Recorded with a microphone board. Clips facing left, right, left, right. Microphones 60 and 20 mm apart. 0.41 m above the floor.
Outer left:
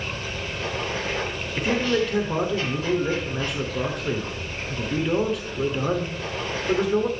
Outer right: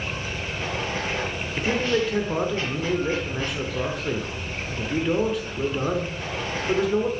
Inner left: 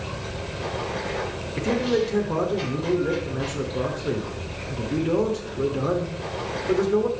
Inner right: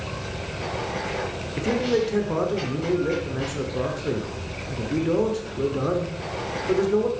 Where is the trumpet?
I don't hear a trumpet.